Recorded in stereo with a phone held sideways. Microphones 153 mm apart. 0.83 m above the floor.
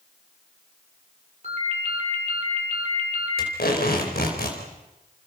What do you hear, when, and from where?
1.4 s a ringtone: 45° right (ahead or behind), 8.5 m
3.4 s tape being pulled: 80° left, 4.5 m